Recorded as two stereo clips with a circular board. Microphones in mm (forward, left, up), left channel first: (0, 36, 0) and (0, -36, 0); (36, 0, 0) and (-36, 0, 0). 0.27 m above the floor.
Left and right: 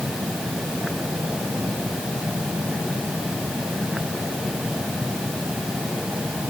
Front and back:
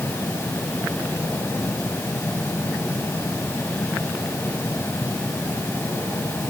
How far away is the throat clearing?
I don't hear throat clearing.